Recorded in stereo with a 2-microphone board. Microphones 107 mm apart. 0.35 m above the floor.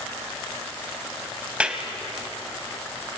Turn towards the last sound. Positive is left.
turn(degrees=-10)  # may be behind; listen again after turning